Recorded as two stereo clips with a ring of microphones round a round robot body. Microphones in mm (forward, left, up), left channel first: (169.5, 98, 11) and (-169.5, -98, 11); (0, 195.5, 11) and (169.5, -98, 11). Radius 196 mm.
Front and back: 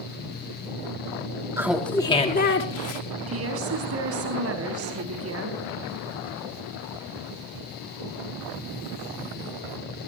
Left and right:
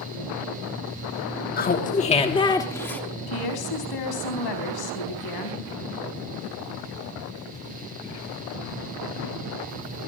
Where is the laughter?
135° left, 1.3 m; by 3.0 s 35° left, 1.4 m.